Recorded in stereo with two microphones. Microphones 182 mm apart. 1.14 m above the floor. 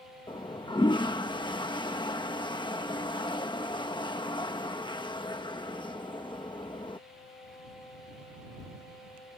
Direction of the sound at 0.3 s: 25° left (ahead or behind).